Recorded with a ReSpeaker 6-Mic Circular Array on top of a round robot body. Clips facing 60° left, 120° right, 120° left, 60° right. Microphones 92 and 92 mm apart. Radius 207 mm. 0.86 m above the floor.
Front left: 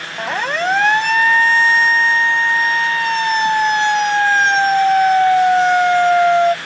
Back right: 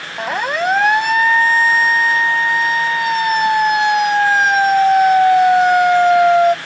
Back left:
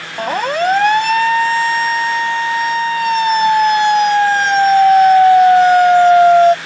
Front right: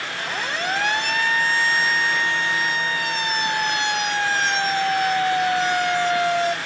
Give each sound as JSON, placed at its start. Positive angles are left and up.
{"t": 0.2, "sound": "a siren", "azimuth_deg": 160}